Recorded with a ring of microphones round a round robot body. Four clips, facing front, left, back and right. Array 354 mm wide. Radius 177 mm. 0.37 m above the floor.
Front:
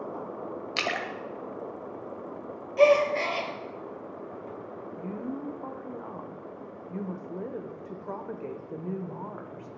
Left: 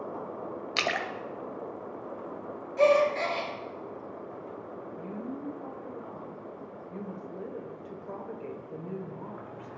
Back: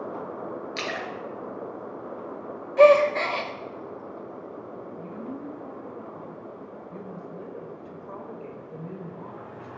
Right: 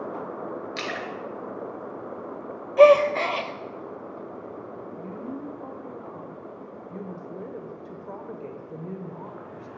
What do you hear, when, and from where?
0.8 s a splash: 60° left, 1.1 m
2.8 s a gasp: 110° right, 0.7 m
5.0 s a woman speaking: 25° right, 1.0 m